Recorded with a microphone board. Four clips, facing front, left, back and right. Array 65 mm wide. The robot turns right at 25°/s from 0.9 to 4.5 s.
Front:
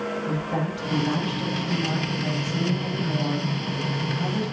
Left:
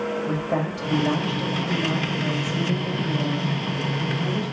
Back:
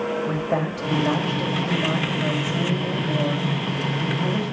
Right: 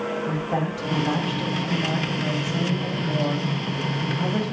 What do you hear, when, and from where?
0.3 s a woman speaking: 155° left, 4.5 m; by 4.5 s 115° right, 4.5 m